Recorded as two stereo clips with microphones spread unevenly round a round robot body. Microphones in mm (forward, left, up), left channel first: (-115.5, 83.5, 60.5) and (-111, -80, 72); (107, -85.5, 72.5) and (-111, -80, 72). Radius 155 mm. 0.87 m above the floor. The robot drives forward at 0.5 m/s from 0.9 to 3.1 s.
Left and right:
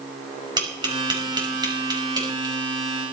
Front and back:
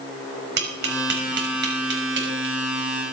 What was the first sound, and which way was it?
Tapping, 150° right.